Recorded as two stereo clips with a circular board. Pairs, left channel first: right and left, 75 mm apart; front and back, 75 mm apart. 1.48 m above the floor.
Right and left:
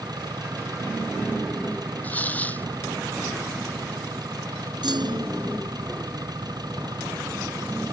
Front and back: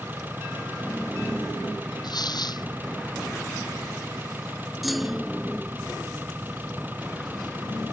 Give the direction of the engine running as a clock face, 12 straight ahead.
8 o'clock.